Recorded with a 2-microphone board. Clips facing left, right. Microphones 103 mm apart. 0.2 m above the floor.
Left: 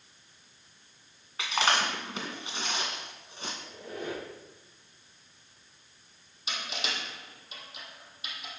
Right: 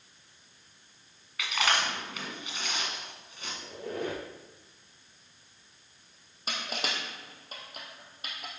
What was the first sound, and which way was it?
Chewing, 30° left (ahead or behind).